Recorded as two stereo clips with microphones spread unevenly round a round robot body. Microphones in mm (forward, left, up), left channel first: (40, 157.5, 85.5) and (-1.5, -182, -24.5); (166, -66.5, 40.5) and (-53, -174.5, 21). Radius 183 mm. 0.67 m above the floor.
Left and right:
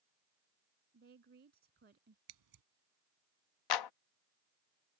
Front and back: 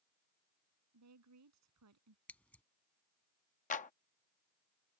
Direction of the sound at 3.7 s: 80° left.